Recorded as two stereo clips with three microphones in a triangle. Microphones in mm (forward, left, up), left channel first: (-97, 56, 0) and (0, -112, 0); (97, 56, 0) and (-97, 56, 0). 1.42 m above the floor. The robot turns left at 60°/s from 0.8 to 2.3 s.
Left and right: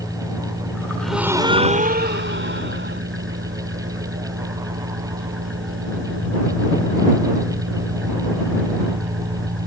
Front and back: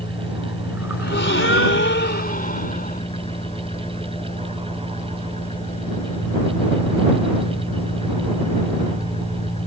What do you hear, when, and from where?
0.0 s an engine running: 30° left; by 9.7 s 60° right
1.0 s a gasp: 35° left; by 3.0 s 45° right